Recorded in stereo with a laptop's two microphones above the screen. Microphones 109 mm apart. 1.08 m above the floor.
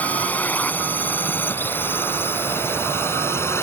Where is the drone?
15° left (ahead or behind); by 3.6 s 20° left (ahead or behind).